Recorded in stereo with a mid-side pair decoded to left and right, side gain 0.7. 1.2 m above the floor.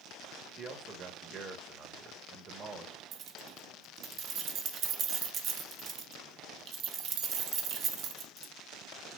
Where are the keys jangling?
45° right, 0.8 m.